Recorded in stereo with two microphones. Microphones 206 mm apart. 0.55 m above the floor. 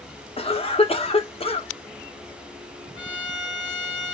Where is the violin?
65° left (ahead or behind), 3 m.